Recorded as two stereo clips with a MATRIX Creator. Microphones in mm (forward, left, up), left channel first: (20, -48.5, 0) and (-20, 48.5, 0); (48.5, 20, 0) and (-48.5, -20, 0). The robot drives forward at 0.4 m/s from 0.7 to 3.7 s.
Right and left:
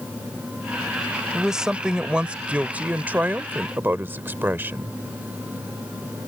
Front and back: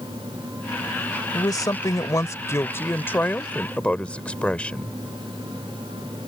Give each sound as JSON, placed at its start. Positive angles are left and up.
{"t": 1.3, "sound": "a woman speaking", "azimuth_deg": 30}